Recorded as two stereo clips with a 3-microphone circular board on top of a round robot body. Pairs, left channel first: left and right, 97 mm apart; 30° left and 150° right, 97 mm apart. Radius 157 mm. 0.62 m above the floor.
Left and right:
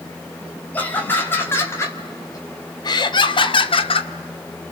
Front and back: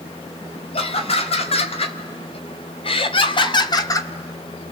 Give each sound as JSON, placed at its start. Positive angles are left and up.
{"t": 0.7, "sound": "laughter", "azimuth_deg": 15, "distance_m": 4.0}